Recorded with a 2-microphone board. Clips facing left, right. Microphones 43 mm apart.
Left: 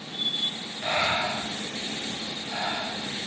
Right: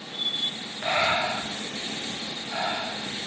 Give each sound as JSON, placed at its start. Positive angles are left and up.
{"t": 0.8, "sound": "breathing", "side_deg": -20, "distance_m": 0.6}